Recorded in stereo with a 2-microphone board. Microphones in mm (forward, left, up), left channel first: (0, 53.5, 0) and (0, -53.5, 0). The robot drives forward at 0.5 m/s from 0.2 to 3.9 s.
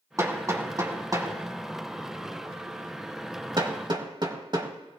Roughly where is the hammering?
Right.